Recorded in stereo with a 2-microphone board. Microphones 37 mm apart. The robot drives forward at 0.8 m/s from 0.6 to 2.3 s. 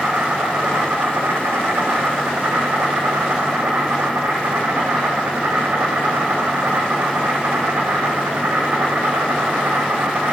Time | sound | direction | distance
0.0 | an insect | 65° right (ahead or behind) | 2.0 m